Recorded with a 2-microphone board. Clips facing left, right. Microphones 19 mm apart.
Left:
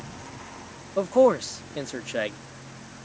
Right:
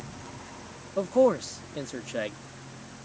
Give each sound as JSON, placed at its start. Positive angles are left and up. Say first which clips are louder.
{"t": 1.0, "sound": "a man speaking", "louder": "left 3 dB", "side_deg": 20}